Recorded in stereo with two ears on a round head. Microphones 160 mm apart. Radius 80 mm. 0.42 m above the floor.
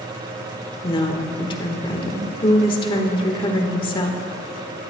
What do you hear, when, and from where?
0.8 s a woman speaking: 30° left (ahead or behind), 1.2 m